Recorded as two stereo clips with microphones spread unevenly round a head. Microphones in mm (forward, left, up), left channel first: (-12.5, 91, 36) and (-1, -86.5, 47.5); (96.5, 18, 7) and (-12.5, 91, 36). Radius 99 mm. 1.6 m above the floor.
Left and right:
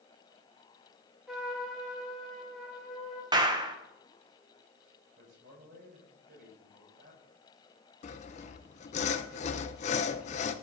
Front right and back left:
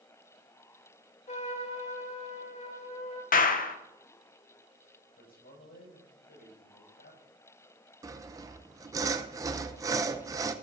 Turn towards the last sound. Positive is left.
turn(degrees=130)